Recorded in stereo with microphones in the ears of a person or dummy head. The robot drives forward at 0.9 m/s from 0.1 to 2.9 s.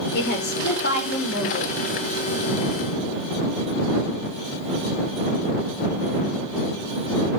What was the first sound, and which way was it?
A woman speaking, 55° left (ahead or behind).